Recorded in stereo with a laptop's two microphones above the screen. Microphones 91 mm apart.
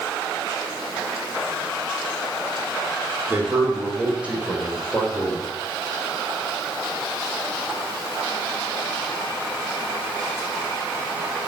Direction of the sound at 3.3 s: 25° right (ahead or behind).